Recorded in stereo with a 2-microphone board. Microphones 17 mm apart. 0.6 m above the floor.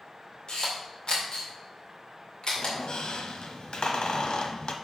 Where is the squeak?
75° left (ahead or behind), 0.9 m.